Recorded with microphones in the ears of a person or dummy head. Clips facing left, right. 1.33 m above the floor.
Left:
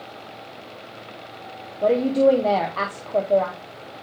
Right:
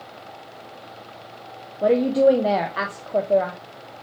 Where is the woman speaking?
5° right (ahead or behind), 0.7 m.